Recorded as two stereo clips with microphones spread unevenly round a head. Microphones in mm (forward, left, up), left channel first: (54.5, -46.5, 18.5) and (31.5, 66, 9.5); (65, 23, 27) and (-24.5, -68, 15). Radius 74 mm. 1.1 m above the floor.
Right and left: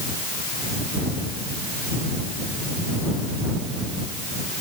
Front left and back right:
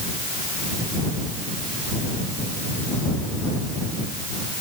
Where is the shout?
No shout in this recording.